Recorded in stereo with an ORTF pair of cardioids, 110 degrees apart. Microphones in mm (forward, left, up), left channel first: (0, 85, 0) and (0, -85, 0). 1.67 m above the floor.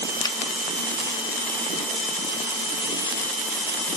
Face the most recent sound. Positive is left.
turn(degrees=20)